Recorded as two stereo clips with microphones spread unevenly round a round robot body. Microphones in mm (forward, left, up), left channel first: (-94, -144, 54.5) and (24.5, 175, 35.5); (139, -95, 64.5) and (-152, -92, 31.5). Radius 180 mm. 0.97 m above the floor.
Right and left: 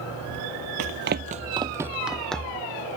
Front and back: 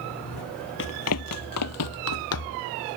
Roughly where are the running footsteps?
Ahead left.